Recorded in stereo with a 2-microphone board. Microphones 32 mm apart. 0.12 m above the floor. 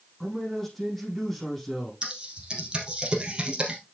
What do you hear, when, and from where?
0.2 s a man speaking: 5° left (ahead or behind), 5 m
2.0 s typing on a keyboard: 30° right (ahead or behind), 2.5 m